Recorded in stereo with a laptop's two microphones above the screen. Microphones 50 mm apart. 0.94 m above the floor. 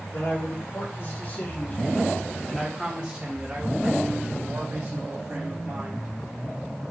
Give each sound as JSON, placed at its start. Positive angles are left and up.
{"t": 0.1, "sound": "a man speaking", "side_deg": 60, "distance_m": 1.5}